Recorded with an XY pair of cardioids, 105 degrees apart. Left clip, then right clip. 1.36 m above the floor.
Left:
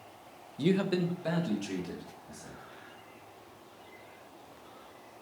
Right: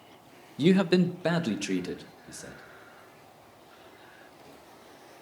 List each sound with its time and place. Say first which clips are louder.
0.6 s a man speaking: right 6 dB; 35° right, 0.6 m; by 2.6 s 80° right, 1.8 m